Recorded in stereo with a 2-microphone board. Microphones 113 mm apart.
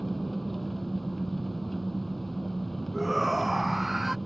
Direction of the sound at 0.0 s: Centre (ahead or behind).